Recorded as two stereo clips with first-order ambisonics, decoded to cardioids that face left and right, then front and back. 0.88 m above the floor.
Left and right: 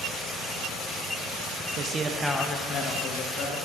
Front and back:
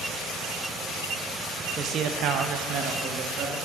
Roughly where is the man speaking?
Behind right.